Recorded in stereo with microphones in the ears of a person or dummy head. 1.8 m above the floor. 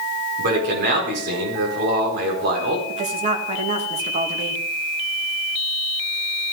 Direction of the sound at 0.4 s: 60° right (ahead or behind).